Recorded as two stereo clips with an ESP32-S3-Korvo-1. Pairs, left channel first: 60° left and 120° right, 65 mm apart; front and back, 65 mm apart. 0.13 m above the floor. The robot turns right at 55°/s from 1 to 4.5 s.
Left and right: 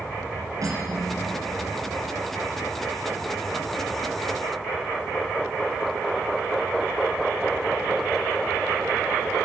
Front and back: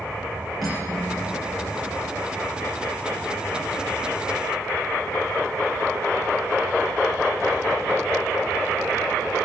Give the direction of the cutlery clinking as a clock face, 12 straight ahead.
3 o'clock.